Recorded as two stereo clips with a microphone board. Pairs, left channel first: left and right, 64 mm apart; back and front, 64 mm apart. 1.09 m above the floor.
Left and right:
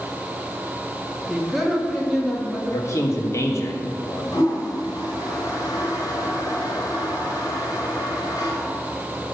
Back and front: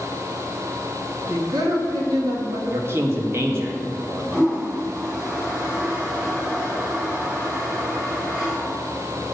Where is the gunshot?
I don't hear a gunshot.